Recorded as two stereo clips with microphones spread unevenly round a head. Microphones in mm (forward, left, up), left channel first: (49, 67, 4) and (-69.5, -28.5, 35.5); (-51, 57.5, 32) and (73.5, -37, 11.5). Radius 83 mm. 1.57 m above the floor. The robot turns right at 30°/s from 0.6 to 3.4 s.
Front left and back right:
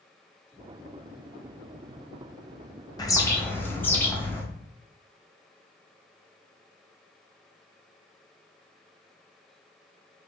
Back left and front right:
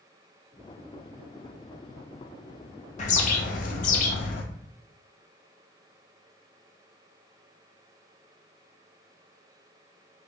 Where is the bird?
110° left, 0.9 m; by 4.4 s 120° left, 0.9 m.